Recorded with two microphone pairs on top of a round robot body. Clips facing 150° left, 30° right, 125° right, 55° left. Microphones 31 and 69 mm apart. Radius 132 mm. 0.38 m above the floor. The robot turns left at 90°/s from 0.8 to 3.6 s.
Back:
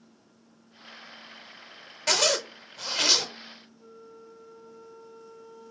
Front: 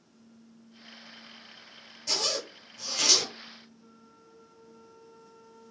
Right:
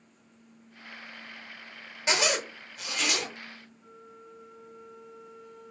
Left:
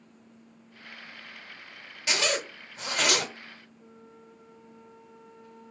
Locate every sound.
2.1 s a zipper: 175° left, 0.8 m; by 3.2 s 70° left, 0.8 m
3.8 s a flute: straight behind, 3.5 m